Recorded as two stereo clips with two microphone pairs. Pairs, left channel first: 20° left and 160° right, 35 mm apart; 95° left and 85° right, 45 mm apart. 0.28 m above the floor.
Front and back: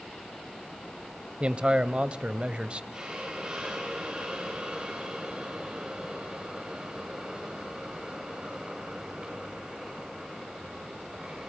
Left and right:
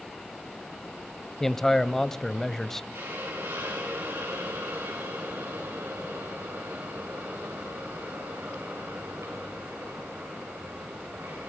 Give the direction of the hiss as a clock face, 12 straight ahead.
3 o'clock.